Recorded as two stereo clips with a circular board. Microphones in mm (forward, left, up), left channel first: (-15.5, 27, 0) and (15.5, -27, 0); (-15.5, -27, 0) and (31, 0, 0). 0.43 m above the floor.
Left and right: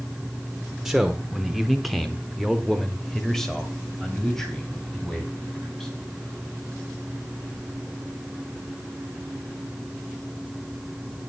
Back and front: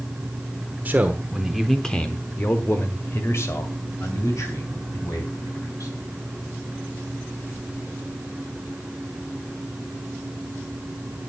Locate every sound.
0.8 s a man speaking: 20° left, 1.2 m; by 5.9 s 160° right, 4 m